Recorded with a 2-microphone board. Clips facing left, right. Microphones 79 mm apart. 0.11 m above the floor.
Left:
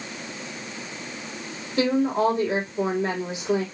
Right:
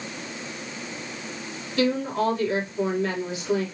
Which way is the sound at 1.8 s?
25° left (ahead or behind).